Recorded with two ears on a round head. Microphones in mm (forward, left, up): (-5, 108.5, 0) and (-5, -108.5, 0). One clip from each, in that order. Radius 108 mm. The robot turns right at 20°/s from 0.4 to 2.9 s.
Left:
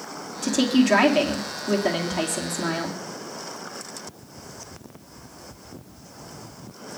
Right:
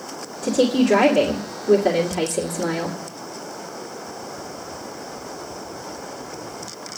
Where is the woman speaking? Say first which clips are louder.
Right 3 dB; 120° left, 1.8 m; by 3.0 s 170° left, 1.8 m.